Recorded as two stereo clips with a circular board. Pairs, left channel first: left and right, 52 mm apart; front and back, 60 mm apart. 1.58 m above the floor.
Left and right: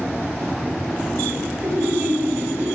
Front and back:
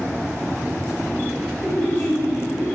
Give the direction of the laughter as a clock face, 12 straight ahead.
3 o'clock.